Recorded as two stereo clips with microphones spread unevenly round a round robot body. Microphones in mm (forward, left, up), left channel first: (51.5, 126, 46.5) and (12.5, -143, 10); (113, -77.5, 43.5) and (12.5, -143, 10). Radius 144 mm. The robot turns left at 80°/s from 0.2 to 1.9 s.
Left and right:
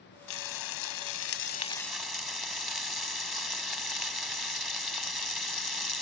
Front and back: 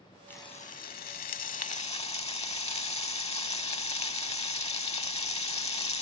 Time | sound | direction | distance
0.3 | frying | 120° left | ?